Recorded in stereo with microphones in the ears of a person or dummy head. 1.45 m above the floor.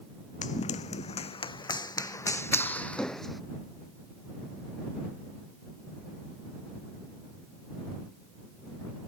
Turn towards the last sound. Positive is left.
turn(degrees=5)  # may be behind; listen again after turning